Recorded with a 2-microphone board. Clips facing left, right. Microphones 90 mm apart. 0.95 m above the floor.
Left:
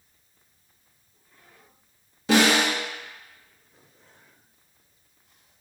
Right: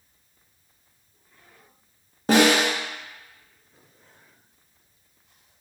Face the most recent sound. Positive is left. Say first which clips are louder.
# right 2 dB
turn(degrees=-40)  # may be behind; listen again after turning